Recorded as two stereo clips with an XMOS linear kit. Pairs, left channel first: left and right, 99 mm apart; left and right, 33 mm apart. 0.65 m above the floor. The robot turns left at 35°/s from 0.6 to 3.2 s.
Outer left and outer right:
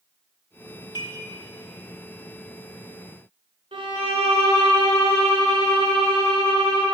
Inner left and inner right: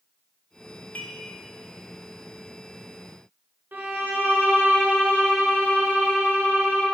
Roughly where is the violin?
Right.